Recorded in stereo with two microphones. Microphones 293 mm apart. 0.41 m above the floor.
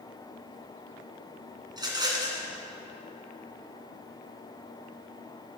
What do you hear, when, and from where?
1.7 s a rattle: 15° right (ahead or behind), 1.9 m